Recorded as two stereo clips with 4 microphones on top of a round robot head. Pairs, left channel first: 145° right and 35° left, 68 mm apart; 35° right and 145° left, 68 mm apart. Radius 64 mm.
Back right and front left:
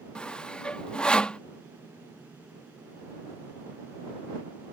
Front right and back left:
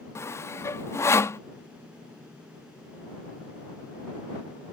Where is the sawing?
70° right.